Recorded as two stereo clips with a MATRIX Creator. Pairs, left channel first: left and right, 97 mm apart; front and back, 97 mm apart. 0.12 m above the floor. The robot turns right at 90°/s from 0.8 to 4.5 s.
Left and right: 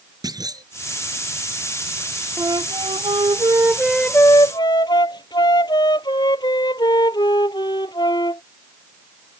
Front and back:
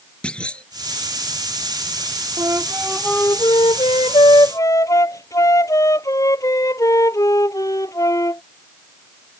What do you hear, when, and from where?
0.2 s a clunk: 75° right
2.4 s a flute: 140° right; by 8.4 s 50° left